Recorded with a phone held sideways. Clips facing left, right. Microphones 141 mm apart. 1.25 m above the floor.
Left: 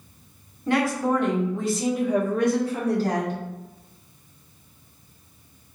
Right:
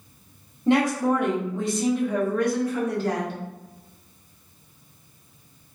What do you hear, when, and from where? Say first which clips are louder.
0.7 s a woman speaking: right 2 dB; 25° right (ahead or behind), 1.4 m; by 3.4 s 40° left (ahead or behind), 1.4 m